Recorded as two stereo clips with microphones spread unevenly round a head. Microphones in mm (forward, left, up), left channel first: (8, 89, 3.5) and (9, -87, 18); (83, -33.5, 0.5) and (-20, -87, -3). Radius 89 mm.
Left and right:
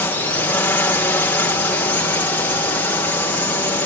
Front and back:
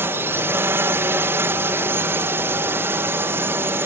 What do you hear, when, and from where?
0.0 s a drone: 155° left